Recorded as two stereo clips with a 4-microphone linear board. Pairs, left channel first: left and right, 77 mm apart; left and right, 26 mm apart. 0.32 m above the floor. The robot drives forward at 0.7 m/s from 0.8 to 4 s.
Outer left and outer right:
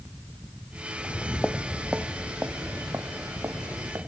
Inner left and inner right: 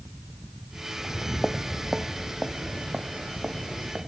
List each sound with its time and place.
1.0 s footsteps: 35° left (ahead or behind), 1.0 m; by 4.0 s 35° right (ahead or behind), 3.5 m